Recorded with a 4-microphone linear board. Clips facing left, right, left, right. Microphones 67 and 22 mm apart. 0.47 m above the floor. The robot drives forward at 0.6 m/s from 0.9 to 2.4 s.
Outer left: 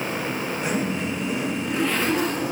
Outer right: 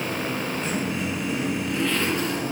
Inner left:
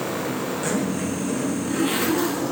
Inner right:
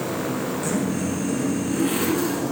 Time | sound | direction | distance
0.6 | a zipper | 20° left (ahead or behind) | 5 m